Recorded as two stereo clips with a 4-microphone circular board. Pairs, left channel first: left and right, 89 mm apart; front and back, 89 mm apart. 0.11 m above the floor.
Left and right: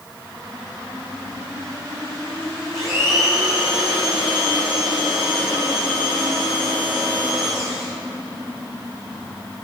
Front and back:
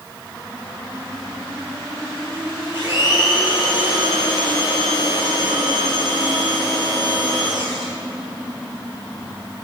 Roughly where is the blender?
Ahead right.